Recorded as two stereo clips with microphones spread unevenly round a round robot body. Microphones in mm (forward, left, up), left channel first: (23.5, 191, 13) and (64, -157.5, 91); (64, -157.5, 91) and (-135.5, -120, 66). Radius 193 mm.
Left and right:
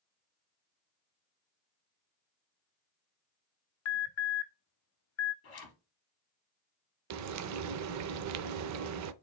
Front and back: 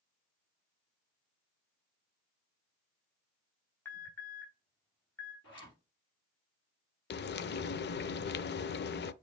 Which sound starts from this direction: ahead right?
Frying, at 7.1 s.